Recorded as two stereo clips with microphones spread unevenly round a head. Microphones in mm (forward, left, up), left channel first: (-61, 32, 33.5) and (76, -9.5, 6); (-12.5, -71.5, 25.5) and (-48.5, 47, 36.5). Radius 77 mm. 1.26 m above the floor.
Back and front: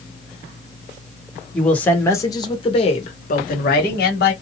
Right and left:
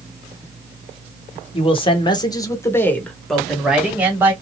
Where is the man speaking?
105° right, 1.3 m; by 4.3 s straight behind, 1.4 m.